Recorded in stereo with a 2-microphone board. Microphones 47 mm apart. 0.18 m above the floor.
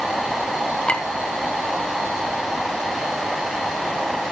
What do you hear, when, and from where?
0.9 s a clink: 25° left (ahead or behind), 1.0 m